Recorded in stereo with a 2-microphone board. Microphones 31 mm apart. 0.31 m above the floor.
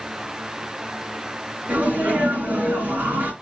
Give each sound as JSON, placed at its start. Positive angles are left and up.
{"t": 1.7, "sound": "a sneeze", "side_deg": -70, "distance_m": 3.0}